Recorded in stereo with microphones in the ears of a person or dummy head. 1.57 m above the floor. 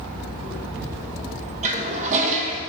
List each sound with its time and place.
1.6 s a toilet flushing: 40° right (ahead or behind), 1.3 m